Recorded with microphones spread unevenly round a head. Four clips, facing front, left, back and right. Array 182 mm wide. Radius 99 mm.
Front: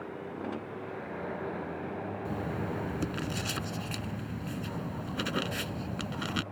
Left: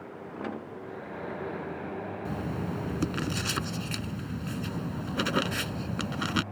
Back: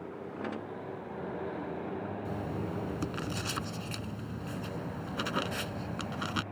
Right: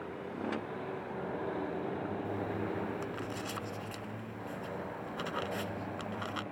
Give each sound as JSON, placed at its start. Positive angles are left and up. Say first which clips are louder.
{"t": 2.2, "sound": "writing", "louder": "left 2 dB, front 2 dB", "azimuth_deg": 95}